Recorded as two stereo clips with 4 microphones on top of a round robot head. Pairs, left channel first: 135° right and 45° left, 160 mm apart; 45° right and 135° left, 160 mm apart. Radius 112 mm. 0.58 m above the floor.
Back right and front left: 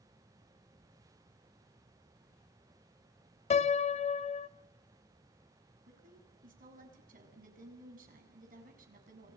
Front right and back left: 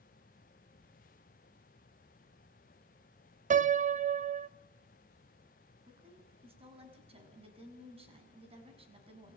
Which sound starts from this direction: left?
A woman speaking, at 5.9 s.